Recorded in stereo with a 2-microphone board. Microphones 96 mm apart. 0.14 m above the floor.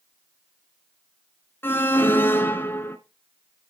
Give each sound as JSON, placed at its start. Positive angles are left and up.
{"t": 1.6, "sound": "an alarm", "side_deg": 25, "distance_m": 1.4}